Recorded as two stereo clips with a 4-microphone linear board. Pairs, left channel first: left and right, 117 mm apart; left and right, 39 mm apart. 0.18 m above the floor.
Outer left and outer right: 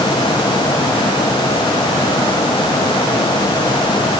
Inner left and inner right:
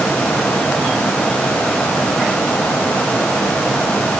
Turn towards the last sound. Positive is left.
No sound to turn to.